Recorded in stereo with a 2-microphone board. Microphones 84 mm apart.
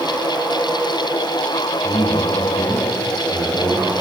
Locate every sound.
1.8 s a man speaking: 30° left (ahead or behind), 8.5 m; by 3.9 s 25° left (ahead or behind), 10 m